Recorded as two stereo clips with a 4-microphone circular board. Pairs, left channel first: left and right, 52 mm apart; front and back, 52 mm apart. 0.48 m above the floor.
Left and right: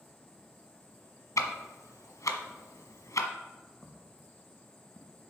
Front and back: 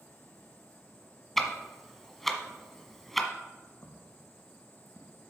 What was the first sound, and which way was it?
Ticking, 90° left.